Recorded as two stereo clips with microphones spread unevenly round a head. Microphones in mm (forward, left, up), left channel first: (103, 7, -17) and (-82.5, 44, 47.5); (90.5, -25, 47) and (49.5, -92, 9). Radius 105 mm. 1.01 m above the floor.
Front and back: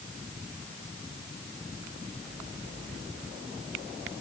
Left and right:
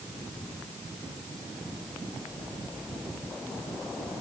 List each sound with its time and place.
Only background noise.